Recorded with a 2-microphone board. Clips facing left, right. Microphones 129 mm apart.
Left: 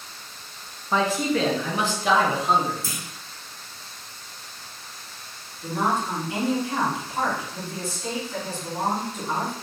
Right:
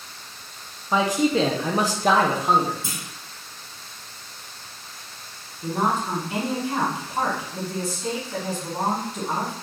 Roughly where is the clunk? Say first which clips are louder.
Even; right.